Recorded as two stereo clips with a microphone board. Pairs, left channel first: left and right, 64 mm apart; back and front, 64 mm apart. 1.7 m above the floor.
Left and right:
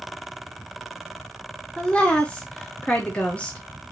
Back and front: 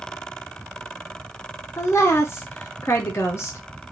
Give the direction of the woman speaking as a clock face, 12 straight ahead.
7 o'clock.